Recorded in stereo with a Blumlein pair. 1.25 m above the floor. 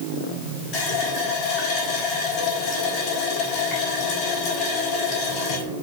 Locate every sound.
0.7 s a running tap: 40° left, 6 m